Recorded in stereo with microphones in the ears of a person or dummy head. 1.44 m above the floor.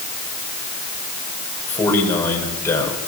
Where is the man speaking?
10° left (ahead or behind), 7 m; by 3.0 s 15° left (ahead or behind), 6.5 m.